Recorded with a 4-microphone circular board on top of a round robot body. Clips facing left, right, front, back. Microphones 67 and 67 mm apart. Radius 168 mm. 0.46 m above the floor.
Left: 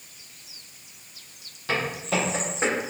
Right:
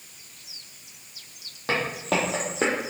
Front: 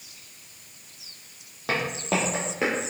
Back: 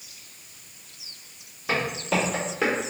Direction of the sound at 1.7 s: 40° right.